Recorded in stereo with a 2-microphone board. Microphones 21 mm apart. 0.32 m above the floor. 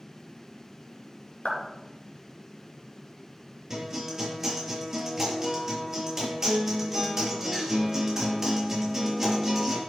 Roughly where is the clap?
Left.